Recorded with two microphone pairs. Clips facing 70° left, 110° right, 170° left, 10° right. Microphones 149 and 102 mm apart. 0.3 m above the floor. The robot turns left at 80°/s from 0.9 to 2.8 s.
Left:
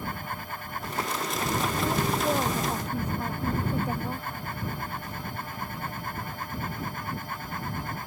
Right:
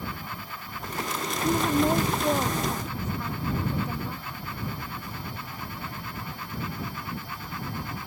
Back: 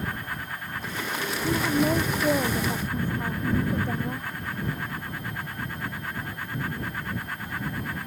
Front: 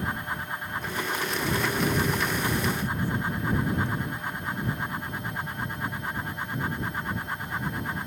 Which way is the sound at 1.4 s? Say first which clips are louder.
Right 7 dB, back 5 dB; 125° right.